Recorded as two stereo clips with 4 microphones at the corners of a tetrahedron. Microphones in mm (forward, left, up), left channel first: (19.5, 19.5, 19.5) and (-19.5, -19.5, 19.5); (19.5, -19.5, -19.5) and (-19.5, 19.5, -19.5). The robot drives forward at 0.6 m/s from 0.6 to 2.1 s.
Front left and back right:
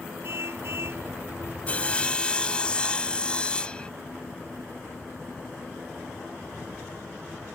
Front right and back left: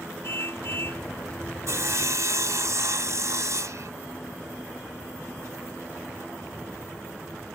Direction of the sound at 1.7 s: 110° left.